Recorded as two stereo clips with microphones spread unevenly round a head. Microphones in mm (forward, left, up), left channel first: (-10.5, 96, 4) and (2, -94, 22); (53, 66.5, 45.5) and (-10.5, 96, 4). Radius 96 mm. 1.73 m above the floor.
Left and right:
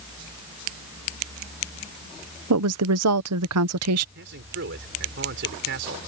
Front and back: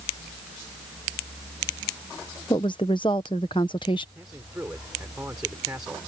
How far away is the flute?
I don't hear a flute.